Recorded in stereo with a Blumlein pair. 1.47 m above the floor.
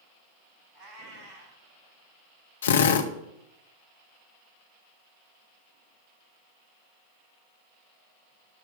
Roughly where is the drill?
Ahead left.